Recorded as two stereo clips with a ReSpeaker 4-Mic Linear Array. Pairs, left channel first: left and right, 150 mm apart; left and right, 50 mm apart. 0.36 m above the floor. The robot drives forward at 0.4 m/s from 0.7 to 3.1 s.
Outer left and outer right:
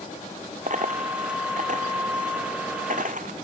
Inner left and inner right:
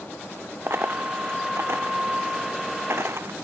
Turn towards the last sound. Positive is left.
turn(degrees=-60)  # may be behind; listen again after turning